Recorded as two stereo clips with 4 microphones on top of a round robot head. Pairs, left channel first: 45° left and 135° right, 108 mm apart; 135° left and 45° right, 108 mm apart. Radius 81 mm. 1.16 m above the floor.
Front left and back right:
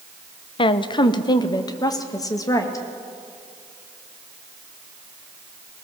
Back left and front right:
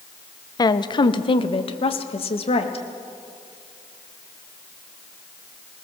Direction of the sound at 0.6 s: 80° left.